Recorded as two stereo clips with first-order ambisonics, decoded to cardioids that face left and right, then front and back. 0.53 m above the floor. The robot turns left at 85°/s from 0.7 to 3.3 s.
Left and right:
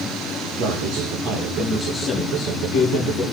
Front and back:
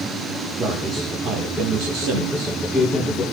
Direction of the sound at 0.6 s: 85° right.